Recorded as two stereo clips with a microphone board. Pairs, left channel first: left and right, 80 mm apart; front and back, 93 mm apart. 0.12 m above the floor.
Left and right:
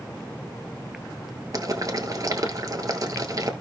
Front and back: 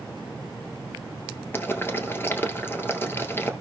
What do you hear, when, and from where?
1.5 s boiling: 60° right, 1.2 m